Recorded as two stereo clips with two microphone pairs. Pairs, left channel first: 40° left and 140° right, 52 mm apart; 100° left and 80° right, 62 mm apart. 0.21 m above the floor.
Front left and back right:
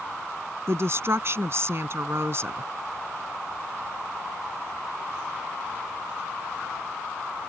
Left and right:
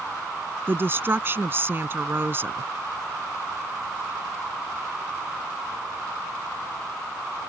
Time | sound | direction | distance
0.7 | a woman speaking | 125° right | ?